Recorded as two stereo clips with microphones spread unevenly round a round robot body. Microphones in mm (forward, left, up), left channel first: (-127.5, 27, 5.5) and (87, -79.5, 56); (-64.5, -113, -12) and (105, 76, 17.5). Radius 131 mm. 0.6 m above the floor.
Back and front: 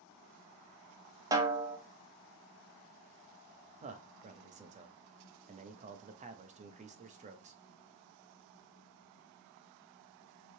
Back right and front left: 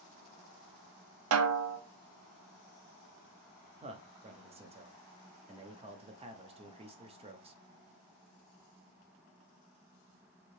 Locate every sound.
1.3 s a snare drum: 55° left, 0.5 m
3.8 s a man speaking: 10° left, 0.5 m